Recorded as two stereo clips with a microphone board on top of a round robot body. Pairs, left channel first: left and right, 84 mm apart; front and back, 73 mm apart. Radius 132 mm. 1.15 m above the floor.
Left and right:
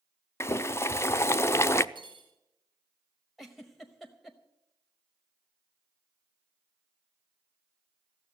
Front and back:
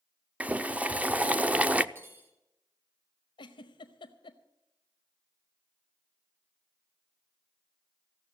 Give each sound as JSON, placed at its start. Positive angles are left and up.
{"t": 0.4, "sound": "boiling", "azimuth_deg": 125, "distance_m": 0.6}
{"t": 1.9, "sound": "cutlery clinking", "azimuth_deg": -120, "distance_m": 3.0}
{"t": 3.4, "sound": "a giggle", "azimuth_deg": 0, "distance_m": 0.8}